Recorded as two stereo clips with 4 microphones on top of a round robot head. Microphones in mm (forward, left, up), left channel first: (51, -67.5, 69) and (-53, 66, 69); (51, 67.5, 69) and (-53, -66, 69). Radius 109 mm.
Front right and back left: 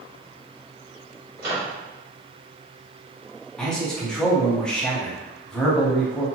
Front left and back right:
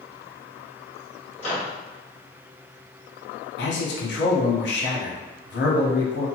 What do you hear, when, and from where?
1.4 s a microwave: 100° left, 1.3 m
3.6 s a man speaking: 35° left, 0.8 m